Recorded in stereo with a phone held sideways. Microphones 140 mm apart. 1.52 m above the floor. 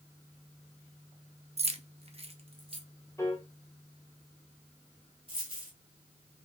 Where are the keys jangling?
45° right (ahead or behind), 0.6 m; by 2.8 s 40° right (ahead or behind), 1.3 m.